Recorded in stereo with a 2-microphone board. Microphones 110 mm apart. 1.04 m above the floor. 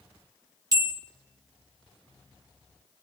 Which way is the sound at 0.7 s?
35° right (ahead or behind).